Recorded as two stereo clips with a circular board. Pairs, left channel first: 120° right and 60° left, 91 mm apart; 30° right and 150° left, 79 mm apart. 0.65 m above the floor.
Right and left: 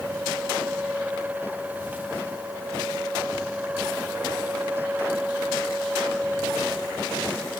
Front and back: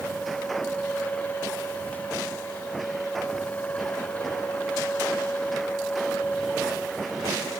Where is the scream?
I don't hear a scream.